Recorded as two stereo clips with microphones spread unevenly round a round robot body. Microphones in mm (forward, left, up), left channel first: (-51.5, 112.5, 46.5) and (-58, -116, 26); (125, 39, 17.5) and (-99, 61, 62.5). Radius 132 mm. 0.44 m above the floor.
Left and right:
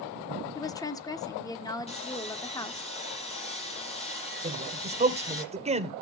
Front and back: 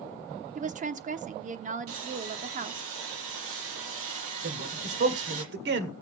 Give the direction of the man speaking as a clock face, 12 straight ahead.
5 o'clock.